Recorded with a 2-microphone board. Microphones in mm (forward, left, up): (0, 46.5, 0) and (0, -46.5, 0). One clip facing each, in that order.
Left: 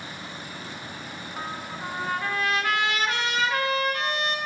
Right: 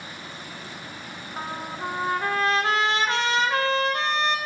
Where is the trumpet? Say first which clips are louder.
Right 3 dB; 30° right (ahead or behind), 1.3 m.